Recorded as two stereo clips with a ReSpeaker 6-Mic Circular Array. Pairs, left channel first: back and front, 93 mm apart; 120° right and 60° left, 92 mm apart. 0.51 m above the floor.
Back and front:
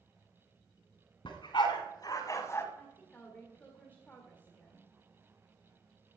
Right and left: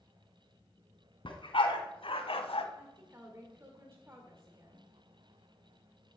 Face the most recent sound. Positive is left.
turn(degrees=115)